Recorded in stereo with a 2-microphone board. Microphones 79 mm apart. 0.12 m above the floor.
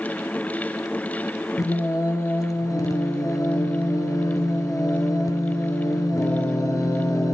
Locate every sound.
1.6 s singing: 50° left (ahead or behind), 1.3 m